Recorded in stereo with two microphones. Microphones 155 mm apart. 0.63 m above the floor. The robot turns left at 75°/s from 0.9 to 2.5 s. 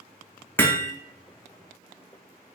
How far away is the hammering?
About 0.6 m.